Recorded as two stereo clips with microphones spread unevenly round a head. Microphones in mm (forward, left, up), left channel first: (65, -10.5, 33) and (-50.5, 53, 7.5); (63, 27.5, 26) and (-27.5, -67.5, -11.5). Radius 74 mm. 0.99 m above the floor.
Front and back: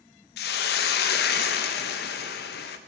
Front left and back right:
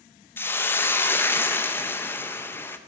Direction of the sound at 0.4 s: 30° right.